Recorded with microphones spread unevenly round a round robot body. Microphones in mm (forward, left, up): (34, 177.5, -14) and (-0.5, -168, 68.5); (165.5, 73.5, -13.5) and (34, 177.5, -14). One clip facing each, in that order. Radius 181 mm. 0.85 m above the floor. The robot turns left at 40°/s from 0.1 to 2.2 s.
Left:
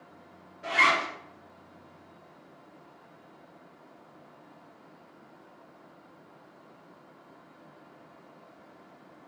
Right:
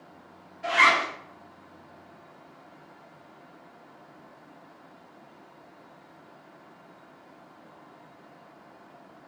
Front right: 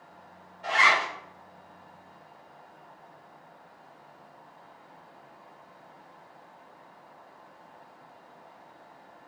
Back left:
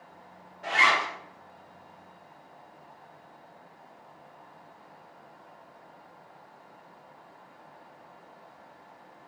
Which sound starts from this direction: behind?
A zipper, at 0.6 s.